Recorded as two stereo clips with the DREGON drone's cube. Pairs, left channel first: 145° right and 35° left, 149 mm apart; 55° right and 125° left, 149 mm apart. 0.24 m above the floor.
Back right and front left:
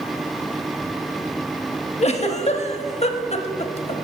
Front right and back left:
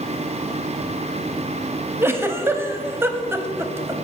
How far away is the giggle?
About 0.5 m.